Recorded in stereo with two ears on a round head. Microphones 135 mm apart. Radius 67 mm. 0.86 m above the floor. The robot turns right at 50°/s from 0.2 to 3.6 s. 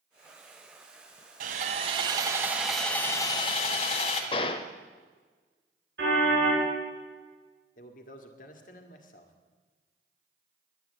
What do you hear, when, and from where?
1.4 s sawing: 65° right, 1.6 m; by 4.2 s 45° left, 1.6 m
4.3 s a gunshot: 35° left (ahead or behind), 0.9 m
6.0 s a car horn: 75° right (ahead or behind), 6.5 m
7.8 s a man speaking: 55° left (ahead or behind), 1.7 m